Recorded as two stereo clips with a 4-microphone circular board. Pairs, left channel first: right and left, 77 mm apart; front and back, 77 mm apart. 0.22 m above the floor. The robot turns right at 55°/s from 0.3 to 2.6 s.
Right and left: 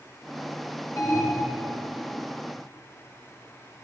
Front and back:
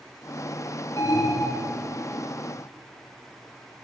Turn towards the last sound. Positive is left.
turn(degrees=40)